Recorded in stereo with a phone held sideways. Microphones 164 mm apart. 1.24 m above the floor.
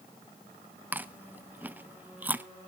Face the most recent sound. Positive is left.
turn(degrees=-10)  # may be behind; listen again after turning